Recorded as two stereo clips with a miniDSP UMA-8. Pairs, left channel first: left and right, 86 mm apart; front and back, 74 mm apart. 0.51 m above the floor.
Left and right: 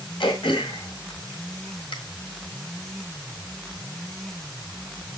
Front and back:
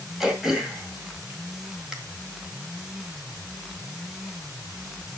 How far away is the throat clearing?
About 1.7 m.